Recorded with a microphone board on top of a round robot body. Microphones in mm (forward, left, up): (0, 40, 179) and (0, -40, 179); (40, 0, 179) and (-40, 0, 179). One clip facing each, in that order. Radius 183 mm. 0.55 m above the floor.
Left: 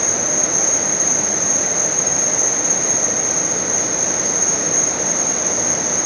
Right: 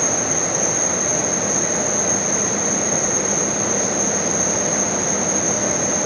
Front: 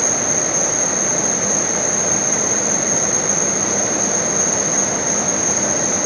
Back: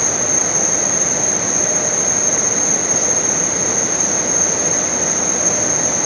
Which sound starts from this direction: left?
An insect, at 0.0 s.